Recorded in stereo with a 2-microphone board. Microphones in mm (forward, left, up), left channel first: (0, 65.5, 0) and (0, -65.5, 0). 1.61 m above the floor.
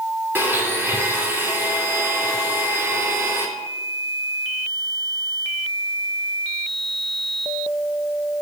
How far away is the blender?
About 2.5 m.